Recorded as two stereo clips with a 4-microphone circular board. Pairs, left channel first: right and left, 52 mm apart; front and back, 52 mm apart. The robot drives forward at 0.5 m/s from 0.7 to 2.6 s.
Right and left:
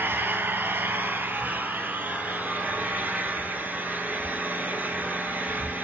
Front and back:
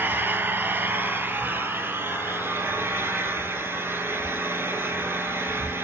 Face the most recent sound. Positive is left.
turn(degrees=150)